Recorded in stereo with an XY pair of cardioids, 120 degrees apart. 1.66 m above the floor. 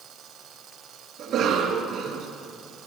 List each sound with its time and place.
1.2 s a cough: 65° right, 2.5 m